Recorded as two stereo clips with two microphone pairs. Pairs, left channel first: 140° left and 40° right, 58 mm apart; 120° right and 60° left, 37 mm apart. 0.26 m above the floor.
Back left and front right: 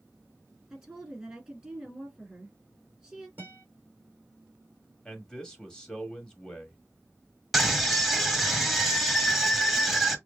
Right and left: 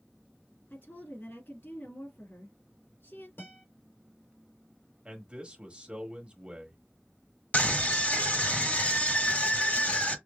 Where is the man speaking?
75° left, 1.4 m.